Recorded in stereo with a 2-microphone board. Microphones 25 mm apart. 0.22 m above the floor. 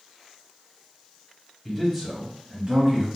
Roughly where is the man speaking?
Centre.